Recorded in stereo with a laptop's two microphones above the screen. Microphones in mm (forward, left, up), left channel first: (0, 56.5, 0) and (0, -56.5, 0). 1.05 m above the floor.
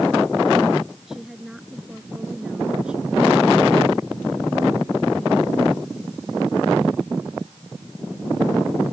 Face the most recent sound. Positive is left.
turn(degrees=-10)  # may be behind; listen again after turning